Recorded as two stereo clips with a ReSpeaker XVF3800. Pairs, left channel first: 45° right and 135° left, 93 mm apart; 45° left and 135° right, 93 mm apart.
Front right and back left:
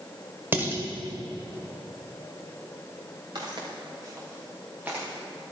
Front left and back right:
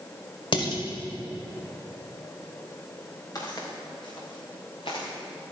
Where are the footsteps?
95° left, 3.5 m; by 5.1 s 60° left, 3 m.